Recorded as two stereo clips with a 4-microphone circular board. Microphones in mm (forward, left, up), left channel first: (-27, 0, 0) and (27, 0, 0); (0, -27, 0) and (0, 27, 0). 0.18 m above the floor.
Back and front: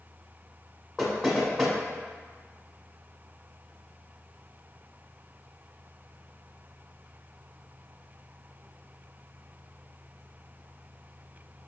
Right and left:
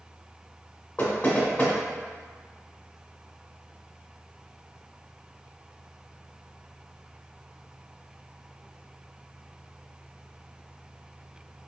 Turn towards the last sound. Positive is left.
turn(degrees=-95)